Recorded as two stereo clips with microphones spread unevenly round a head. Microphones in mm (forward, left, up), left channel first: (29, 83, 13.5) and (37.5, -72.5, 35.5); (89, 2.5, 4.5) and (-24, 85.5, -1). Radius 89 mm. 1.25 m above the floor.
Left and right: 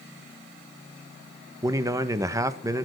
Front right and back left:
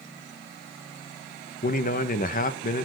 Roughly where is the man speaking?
Ahead.